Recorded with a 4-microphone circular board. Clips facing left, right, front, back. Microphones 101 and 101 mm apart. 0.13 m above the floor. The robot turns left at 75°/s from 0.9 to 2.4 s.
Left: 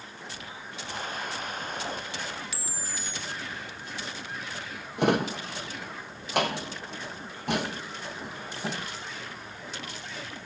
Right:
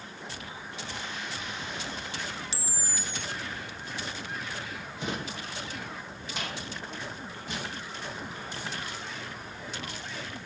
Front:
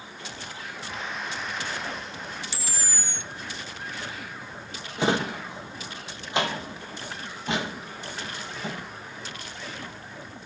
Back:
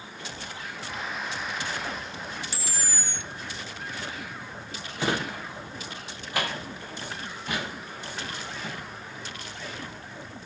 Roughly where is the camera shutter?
Behind right.